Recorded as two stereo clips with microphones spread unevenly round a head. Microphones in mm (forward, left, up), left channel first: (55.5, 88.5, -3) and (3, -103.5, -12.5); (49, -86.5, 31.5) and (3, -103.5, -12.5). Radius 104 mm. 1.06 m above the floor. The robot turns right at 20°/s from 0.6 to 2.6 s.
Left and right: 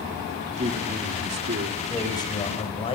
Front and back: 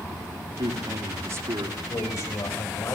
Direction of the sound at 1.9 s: Straight ahead.